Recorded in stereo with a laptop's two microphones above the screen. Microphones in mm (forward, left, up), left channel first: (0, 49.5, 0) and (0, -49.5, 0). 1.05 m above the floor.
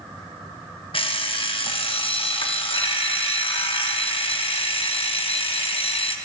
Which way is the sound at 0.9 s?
65° left (ahead or behind).